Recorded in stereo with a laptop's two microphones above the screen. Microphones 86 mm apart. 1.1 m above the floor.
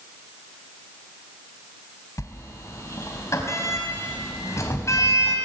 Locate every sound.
2.2 s a sliding door: 35° left (ahead or behind), 4 m